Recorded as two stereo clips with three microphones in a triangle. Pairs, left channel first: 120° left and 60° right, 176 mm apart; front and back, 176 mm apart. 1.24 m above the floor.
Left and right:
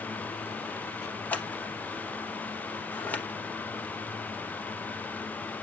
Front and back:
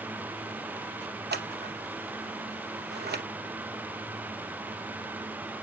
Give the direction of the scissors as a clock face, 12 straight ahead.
5 o'clock.